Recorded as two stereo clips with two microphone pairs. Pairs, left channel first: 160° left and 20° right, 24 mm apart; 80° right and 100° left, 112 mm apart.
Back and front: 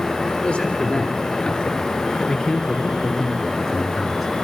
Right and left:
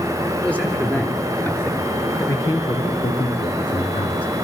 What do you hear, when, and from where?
0.4 s a man speaking: 160° right, 4 m; by 4.3 s 110° right, 3 m